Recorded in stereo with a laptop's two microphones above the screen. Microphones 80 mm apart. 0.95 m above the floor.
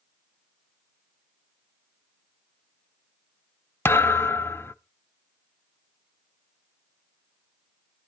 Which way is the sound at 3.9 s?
30° left (ahead or behind).